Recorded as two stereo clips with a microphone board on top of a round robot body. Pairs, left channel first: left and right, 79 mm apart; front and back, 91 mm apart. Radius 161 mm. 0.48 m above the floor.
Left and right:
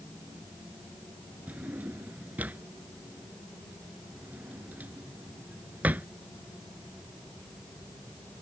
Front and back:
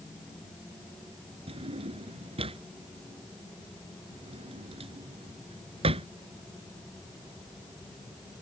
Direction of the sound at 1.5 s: 165° right.